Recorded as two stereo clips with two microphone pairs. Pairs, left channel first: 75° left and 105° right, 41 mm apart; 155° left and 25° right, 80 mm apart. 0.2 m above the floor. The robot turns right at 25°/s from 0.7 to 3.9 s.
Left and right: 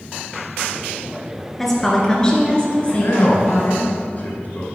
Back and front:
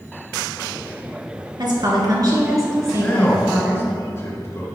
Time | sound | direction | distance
1.6 | a woman speaking | 5° right | 2 m
3.0 | a man speaking | 85° left | 2.5 m